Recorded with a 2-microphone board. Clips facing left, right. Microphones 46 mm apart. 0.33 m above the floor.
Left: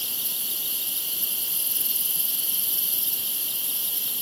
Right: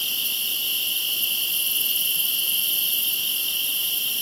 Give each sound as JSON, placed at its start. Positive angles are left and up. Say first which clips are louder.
{"t": 0.0, "sound": "an insect", "louder": "right 9 dB", "side_deg": -60}